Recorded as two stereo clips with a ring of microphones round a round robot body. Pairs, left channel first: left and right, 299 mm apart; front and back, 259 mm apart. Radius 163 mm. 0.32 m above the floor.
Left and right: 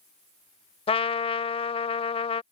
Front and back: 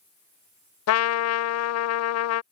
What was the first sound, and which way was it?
A trumpet, 20° left.